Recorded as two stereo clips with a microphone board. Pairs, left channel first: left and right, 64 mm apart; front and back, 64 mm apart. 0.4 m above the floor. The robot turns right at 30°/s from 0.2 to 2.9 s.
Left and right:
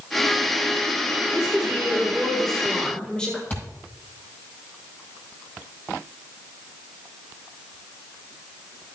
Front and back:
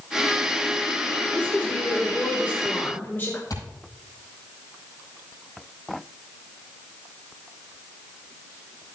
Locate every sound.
1.3 s a woman speaking: 25° right, 1.7 m; by 3.4 s 25° left, 1.7 m
3.5 s a thud: 25° left, 6 m